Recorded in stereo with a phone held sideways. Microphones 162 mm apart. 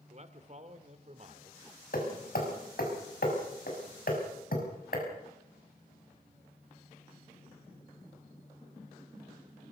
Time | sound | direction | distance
0.1 | a man speaking | 45° right (ahead or behind) | 2.0 m
1.9 | hammering | 65° left (ahead or behind) | 6 m